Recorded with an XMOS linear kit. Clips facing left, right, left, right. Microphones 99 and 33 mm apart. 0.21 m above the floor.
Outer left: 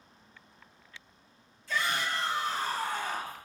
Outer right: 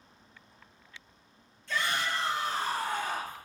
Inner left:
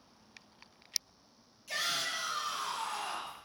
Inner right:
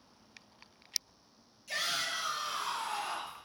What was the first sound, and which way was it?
A shout, centre (ahead or behind).